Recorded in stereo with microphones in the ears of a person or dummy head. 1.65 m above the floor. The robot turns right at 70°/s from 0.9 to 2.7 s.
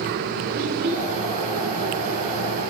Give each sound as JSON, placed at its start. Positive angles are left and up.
{"t": 0.5, "sound": "a child speaking", "side_deg": -50, "distance_m": 4.5}